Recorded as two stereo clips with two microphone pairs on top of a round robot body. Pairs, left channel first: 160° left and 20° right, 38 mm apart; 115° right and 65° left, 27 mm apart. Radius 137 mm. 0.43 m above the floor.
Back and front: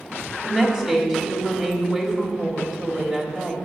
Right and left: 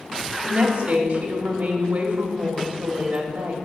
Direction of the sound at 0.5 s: 70° left.